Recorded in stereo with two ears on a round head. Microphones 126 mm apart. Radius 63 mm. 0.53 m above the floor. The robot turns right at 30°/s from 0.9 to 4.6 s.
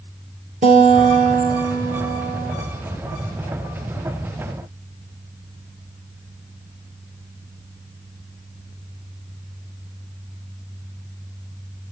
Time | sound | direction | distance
0.6 | a guitar | 120° right | 5.5 m